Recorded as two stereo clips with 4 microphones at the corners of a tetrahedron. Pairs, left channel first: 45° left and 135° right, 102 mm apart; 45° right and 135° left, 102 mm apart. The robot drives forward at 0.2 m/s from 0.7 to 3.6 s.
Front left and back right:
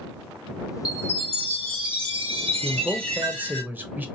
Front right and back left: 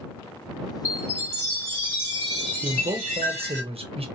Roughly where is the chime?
Right.